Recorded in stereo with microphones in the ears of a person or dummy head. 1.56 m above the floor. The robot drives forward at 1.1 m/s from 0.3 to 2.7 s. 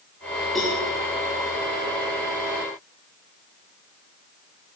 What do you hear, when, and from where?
0.6 s a cowbell: centre (ahead or behind), 7.5 m